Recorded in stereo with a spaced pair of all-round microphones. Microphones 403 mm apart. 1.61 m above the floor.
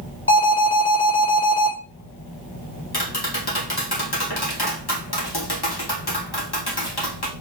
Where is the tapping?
65° left (ahead or behind), 2 m.